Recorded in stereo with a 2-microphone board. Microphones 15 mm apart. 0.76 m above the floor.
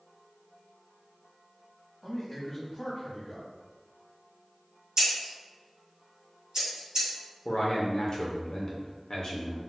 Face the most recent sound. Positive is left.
turn(degrees=45)  # may be behind; listen again after turning